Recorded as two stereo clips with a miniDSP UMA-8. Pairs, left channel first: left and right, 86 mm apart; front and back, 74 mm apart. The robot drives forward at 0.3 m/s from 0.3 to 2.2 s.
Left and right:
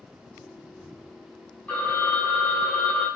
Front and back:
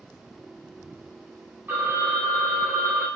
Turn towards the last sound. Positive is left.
turn(degrees=155)